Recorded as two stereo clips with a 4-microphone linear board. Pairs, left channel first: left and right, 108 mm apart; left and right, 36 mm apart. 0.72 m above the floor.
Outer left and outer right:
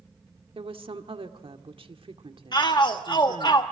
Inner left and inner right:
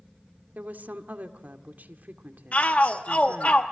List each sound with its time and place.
0.6 s a woman speaking: 60° right (ahead or behind), 1.8 m
2.5 s a shout: 45° left (ahead or behind), 1.1 m